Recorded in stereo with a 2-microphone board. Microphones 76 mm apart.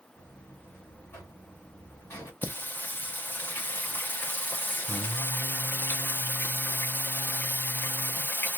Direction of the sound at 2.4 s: 25° left (ahead or behind).